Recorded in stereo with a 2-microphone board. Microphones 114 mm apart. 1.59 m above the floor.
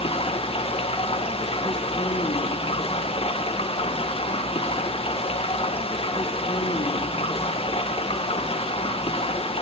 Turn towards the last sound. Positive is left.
turn(degrees=55)  # may be behind; listen again after turning